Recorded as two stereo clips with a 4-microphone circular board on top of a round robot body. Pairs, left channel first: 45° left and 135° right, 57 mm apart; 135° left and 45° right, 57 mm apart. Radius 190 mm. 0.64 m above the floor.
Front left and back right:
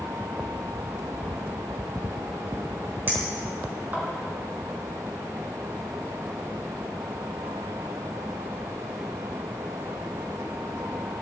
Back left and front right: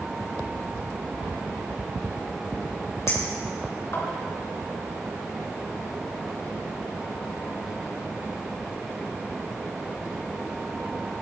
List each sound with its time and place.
3.1 s a clink: 170° left, 4.5 m